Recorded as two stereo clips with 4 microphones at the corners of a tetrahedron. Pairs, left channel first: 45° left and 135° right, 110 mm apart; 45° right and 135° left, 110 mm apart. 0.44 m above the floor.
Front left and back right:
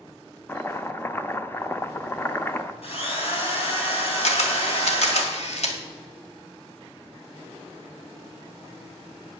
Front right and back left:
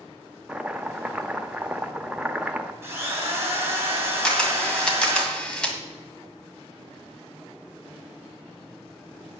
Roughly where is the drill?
Left.